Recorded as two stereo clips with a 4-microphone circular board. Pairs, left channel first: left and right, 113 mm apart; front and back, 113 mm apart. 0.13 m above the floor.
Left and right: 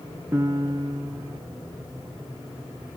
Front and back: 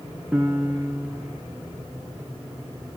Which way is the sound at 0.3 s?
120° right.